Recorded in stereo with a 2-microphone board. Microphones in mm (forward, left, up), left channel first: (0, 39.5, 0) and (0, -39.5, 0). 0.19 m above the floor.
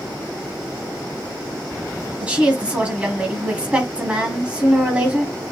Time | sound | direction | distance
2.2 | a woman speaking | 15° right (ahead or behind) | 1.2 m